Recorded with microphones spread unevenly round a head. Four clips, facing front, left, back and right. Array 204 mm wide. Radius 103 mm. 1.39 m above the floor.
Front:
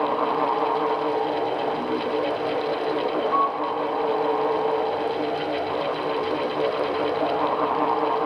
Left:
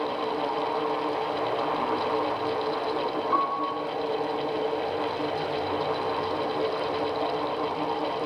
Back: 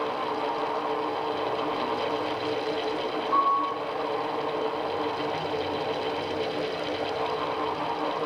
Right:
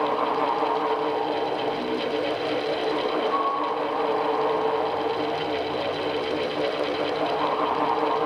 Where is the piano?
100° left, 6 m.